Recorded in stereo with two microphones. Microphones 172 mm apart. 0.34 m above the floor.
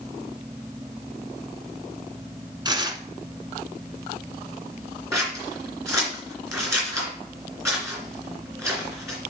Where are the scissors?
15° right (ahead or behind), 2.5 m.